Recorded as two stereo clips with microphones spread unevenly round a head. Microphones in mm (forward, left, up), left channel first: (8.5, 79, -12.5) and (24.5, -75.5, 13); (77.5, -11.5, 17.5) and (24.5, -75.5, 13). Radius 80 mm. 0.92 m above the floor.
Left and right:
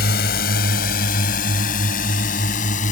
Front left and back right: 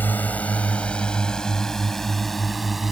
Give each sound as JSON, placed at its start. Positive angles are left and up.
{"t": 0.0, "sound": "a drone", "azimuth_deg": 130}